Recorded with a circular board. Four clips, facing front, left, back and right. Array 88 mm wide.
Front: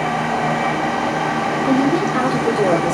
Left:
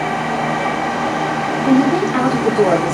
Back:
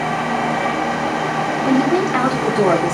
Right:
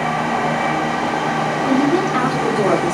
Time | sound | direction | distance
1.6 | a woman speaking | 150° left | 2.5 m